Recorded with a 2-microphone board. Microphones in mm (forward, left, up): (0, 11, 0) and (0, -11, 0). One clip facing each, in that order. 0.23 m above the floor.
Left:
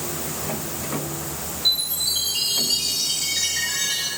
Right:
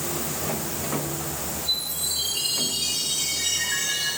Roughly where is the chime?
Left.